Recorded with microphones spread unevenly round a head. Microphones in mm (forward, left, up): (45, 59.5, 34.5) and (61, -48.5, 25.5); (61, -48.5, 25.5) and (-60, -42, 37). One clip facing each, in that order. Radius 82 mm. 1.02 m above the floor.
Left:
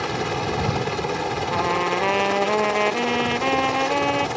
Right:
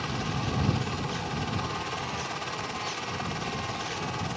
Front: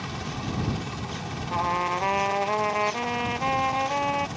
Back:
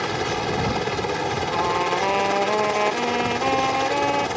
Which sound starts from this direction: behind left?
A helicopter, at 0.0 s.